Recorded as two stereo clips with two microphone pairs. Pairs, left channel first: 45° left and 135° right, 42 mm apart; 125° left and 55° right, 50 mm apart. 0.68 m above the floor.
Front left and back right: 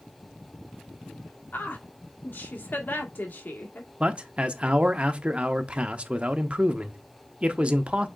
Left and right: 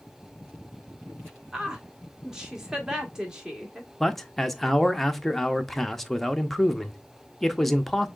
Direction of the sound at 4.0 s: 160° right.